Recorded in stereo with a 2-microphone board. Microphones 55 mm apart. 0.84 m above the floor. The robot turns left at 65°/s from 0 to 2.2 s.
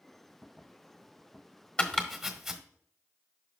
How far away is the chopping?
About 1.3 m.